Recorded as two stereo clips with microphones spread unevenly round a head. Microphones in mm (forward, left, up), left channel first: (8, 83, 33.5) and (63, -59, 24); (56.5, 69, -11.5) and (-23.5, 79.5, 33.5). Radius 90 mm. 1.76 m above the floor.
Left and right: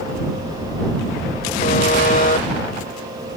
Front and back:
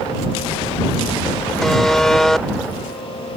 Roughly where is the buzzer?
Left.